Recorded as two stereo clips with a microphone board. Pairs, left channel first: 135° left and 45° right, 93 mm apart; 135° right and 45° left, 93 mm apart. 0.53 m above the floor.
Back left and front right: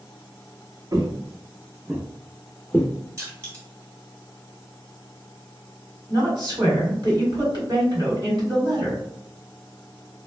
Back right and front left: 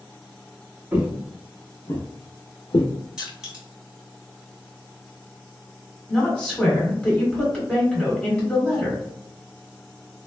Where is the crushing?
30° right, 1.4 m.